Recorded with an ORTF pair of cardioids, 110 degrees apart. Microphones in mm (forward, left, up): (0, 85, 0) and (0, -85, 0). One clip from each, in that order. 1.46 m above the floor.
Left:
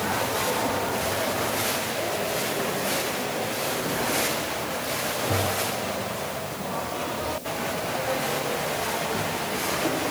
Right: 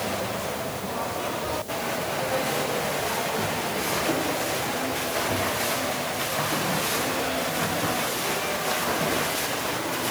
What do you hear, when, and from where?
Only background noise.